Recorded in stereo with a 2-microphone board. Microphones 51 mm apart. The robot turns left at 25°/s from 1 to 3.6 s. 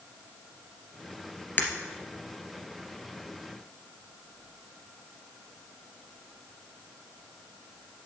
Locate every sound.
1.6 s breaking glass: 35° left (ahead or behind), 2.5 m